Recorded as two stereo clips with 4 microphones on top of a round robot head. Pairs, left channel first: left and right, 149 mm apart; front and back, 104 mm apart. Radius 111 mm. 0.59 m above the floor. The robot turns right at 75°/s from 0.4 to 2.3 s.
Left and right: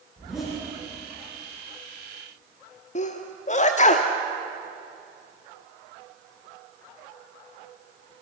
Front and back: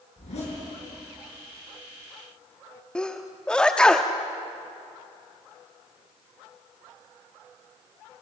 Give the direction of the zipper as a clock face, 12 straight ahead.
12 o'clock.